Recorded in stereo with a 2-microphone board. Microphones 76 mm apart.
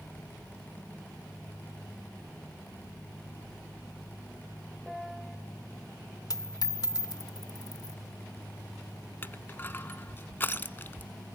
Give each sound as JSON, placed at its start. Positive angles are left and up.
{"t": 4.9, "sound": "a piano", "side_deg": 0, "distance_m": 0.9}
{"t": 6.3, "sound": "a dropped coin", "side_deg": 50, "distance_m": 0.7}
{"t": 9.2, "sound": "crushing", "side_deg": 30, "distance_m": 0.7}